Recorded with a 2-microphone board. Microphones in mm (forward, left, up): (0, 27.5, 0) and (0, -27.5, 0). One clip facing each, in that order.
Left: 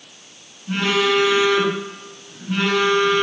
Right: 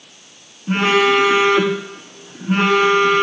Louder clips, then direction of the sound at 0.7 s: Right 4 dB; 40° right (ahead or behind).